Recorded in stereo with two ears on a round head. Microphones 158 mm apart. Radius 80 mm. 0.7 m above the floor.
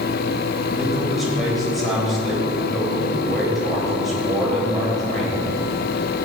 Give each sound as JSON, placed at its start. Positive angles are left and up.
{"t": 0.7, "sound": "a man speaking", "side_deg": 0, "distance_m": 3.0}